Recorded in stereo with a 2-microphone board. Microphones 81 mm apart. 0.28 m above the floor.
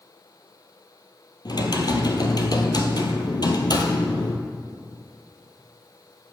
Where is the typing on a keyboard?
55° left (ahead or behind), 1.3 m.